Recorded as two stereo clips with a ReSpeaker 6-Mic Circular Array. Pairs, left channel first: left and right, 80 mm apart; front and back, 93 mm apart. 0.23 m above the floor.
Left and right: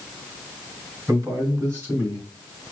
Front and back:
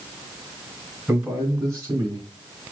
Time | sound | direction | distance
1.1 | a man speaking | 120° right | 2.5 m